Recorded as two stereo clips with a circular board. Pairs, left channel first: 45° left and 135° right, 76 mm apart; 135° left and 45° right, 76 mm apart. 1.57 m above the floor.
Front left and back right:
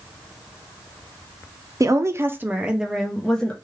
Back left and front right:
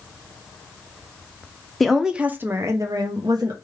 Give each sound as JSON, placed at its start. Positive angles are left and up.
{"t": 1.8, "sound": "a woman speaking", "azimuth_deg": -140, "distance_m": 0.6}